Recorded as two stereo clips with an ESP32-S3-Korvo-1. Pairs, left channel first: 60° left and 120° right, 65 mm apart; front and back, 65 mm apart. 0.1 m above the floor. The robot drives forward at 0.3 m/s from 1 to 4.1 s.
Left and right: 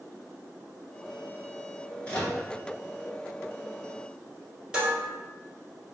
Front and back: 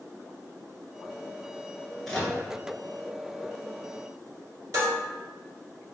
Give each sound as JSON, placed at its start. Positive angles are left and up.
{"t": 2.0, "sound": "a microwave", "azimuth_deg": 80, "distance_m": 0.9}
{"t": 4.7, "sound": "dishes clattering", "azimuth_deg": 165, "distance_m": 1.5}